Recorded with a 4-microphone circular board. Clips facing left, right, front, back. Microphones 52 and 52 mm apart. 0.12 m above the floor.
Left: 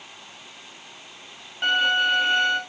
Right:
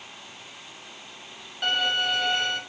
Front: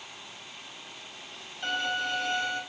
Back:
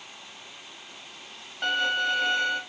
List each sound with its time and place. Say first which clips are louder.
1.6 s a violin: left 5 dB, back 5 dB; 155° left, 4 m